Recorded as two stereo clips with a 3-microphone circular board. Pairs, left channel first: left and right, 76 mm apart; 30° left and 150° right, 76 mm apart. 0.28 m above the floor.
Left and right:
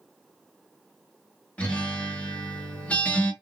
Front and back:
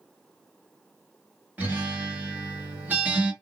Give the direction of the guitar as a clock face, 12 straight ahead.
7 o'clock.